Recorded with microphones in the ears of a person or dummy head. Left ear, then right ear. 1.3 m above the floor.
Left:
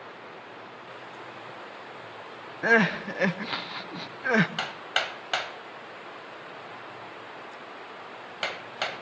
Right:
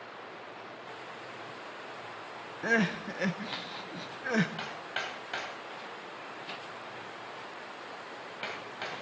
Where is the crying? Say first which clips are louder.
Left 7 dB; 25° left (ahead or behind), 0.5 m.